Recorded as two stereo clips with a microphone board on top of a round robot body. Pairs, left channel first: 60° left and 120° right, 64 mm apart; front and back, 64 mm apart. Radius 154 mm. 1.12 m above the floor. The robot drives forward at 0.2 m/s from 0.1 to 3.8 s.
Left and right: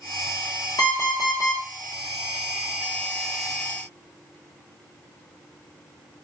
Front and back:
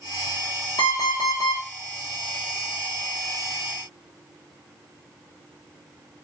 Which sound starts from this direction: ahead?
An alarm clock, at 0.8 s.